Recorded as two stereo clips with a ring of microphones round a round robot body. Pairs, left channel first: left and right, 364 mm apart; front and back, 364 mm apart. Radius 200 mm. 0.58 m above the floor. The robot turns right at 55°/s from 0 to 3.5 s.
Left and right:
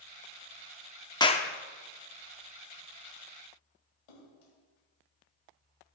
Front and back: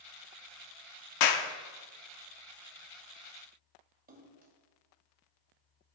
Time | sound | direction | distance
1.2 | a clap | 10° left | 0.9 m
4.1 | a splash | 110° left | 2.5 m